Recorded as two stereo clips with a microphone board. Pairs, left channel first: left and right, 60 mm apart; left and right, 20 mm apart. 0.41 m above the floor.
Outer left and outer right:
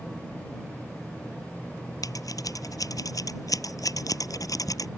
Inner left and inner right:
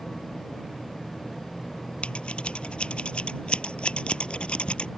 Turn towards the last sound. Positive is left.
turn(degrees=85)